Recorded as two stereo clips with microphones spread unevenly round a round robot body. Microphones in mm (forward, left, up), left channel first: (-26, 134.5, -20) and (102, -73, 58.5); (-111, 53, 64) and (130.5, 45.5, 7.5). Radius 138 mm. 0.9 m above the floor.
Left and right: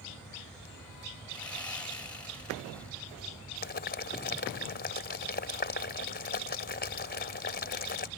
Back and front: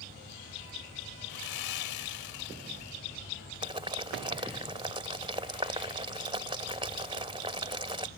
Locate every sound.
1.3 s sawing: 155° right
3.6 s boiling: 70° left